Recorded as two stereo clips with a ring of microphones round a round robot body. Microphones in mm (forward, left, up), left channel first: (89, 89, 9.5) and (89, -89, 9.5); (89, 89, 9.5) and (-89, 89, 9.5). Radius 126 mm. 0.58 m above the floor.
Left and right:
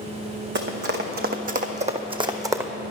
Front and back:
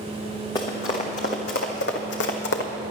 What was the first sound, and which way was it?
Running footsteps, 75° right.